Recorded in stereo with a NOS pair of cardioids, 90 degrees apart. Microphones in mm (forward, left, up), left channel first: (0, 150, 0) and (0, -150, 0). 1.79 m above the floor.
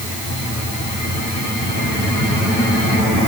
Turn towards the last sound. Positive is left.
No sound to turn to.